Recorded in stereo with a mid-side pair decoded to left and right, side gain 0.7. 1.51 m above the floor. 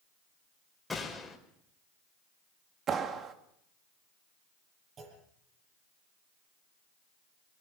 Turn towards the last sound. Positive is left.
turn(degrees=-40)